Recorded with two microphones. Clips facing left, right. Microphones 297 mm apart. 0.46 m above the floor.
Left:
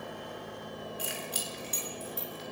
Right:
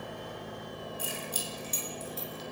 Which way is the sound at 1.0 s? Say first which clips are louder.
Right 1 dB; 75° left (ahead or behind).